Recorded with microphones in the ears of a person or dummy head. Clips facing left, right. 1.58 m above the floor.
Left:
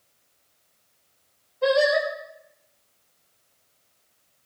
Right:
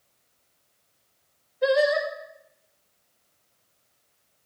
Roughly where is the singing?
Right.